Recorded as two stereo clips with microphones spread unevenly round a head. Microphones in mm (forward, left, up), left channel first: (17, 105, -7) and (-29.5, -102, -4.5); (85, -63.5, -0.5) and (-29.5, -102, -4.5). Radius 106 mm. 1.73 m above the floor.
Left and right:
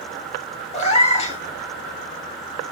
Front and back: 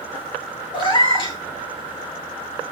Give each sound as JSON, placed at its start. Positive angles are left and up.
{"t": 0.7, "sound": "a cat meowing", "azimuth_deg": 30, "distance_m": 1.5}